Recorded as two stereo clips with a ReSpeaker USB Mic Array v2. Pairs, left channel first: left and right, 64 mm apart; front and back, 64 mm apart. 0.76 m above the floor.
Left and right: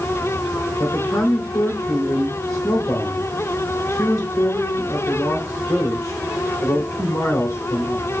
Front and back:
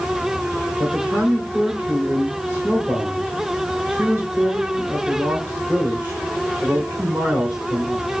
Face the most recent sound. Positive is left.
turn(degrees=120)